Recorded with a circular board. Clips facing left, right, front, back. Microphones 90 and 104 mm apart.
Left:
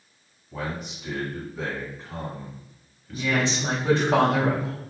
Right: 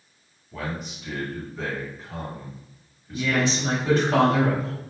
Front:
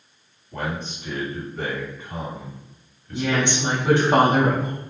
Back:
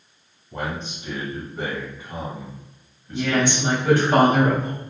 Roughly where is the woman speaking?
Ahead left.